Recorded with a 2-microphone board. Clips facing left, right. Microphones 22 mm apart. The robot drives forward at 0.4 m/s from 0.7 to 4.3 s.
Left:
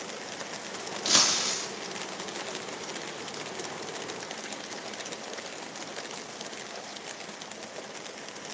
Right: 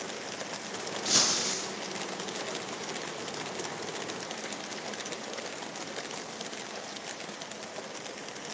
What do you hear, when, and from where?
1.1 s breaking glass: 45° left (ahead or behind), 1.7 m; by 1.7 s 50° left (ahead or behind), 1.6 m